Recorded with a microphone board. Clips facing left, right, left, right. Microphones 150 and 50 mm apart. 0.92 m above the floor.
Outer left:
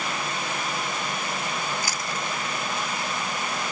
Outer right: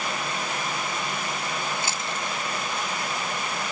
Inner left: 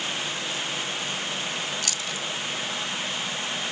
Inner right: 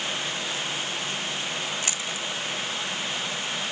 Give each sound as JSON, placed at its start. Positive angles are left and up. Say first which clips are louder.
{"t": 1.8, "sound": "chewing", "louder": "even, even", "side_deg": -25, "distance_m": 1.1}